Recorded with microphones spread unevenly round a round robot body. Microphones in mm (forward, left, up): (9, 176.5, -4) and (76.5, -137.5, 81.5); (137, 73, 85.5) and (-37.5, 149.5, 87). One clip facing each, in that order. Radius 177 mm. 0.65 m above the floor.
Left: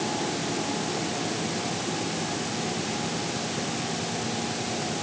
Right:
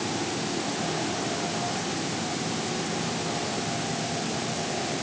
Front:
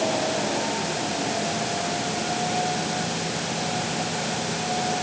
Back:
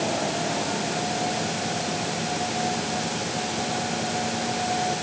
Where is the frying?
I don't hear frying.